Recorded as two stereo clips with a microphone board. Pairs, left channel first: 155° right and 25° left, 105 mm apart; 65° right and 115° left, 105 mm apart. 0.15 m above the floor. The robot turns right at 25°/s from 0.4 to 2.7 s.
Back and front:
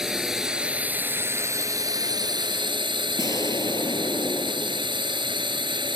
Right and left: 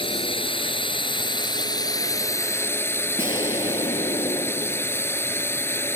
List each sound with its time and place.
0.0 s a drone: 65° right; by 6.0 s 5° right
3.2 s an explosion: 105° right